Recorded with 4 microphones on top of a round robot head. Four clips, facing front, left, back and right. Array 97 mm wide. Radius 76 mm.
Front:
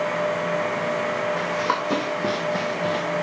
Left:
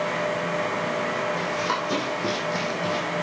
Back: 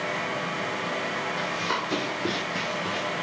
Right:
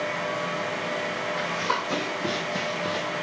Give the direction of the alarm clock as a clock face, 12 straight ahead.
No alarm clock in this recording.